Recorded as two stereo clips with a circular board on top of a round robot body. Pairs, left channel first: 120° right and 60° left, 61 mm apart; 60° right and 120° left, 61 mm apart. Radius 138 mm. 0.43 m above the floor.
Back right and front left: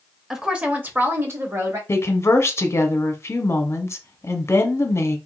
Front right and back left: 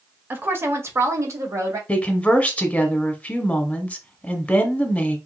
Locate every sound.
0.3 s a woman speaking: 135° left, 0.9 m; by 1.8 s 90° left, 1.5 m
1.9 s a woman speaking: 120° right, 1.0 m